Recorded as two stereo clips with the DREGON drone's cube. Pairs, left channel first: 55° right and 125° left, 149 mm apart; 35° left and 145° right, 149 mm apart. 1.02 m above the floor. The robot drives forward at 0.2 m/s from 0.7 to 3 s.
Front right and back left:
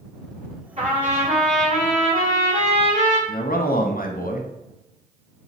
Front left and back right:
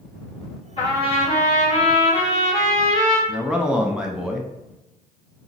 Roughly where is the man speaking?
Ahead right.